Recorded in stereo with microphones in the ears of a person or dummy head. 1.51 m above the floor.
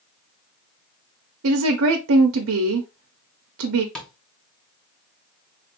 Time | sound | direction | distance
1.4 | a woman speaking | 90° right | 0.6 m
4.0 | tapping | 10° left (ahead or behind) | 1.0 m